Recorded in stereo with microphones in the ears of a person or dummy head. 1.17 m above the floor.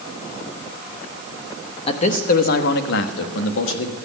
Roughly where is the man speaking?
Left.